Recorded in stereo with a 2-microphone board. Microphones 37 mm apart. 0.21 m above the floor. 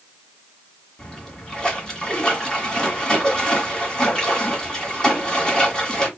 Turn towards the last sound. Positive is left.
turn(degrees=25)  # may be behind; listen again after turning